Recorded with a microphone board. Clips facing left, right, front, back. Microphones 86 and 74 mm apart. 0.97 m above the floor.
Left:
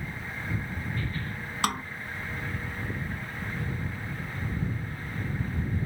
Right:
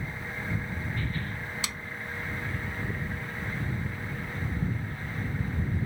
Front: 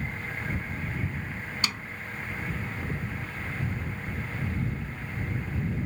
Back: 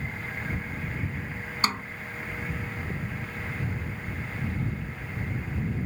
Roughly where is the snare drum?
Behind left.